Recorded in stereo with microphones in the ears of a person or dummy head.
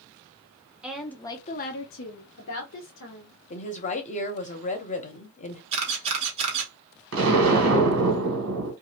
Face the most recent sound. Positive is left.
turn(degrees=-75)  # may be behind; listen again after turning